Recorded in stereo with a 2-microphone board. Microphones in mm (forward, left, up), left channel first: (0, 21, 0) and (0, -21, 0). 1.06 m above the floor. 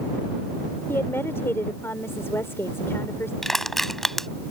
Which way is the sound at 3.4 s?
5° left (ahead or behind).